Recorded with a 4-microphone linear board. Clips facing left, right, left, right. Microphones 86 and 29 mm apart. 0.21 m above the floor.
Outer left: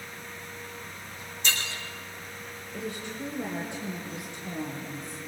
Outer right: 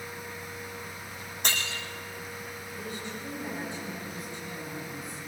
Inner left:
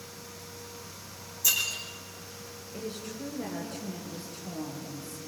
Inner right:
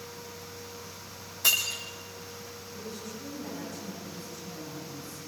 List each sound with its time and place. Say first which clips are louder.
1.4 s breaking glass: outer left 1 dB, inner right 2 dB; 55° right (ahead or behind), 5 m
2.7 s a woman speaking: outer left 4 dB, inner left 4 dB; 65° left (ahead or behind), 4.5 m